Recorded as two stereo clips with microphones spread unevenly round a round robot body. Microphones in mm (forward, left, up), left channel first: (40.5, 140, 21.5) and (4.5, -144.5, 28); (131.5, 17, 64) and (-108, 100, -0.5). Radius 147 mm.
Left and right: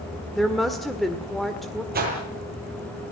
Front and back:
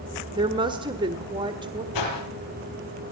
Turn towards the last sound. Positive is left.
turn(degrees=-40)